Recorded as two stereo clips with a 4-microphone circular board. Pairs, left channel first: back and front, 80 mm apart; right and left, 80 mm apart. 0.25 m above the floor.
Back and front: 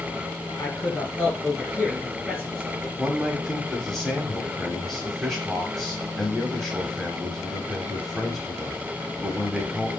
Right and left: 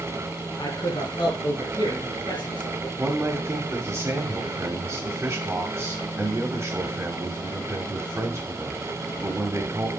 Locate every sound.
0.6 s a man speaking: 110° right, 4 m
3.0 s a man speaking: 95° left, 1.3 m